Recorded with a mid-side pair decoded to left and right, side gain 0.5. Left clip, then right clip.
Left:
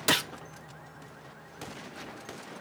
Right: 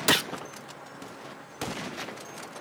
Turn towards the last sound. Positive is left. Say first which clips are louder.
# right 2 dB
turn(degrees=-20)